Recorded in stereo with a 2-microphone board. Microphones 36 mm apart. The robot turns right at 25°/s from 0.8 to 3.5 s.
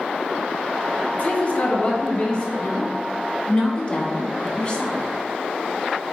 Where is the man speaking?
120° left, 1.9 m; by 2.5 s 150° left, 1.9 m.